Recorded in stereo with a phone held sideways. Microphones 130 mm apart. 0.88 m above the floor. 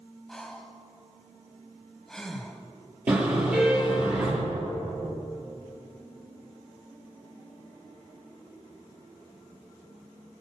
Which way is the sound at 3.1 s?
10° right (ahead or behind).